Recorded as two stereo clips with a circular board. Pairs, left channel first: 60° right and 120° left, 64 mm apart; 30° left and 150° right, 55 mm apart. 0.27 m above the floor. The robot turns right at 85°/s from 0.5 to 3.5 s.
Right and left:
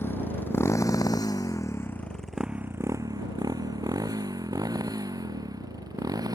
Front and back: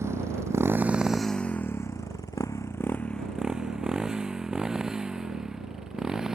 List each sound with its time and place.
0.0 s a motorcycle: 115° right; by 6.3 s 130° left